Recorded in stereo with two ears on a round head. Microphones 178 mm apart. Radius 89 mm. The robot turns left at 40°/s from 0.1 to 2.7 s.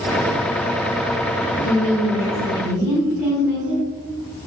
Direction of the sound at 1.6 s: 35° left.